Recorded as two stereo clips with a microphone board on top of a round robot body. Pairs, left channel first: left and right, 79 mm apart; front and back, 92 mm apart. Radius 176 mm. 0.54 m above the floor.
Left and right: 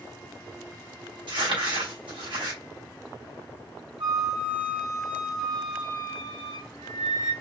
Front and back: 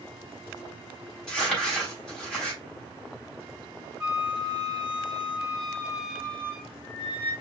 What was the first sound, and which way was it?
Crumpling, 85° right.